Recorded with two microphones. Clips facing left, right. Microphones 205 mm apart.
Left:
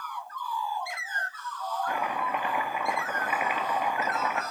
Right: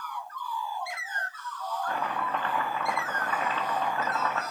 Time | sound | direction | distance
1.9 | chopping | 15° left (ahead or behind) | 1.7 m